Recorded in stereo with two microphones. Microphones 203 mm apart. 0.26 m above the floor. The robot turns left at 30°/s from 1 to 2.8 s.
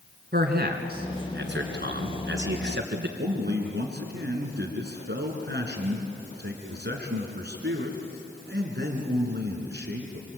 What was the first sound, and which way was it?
A man speaking, 60° right.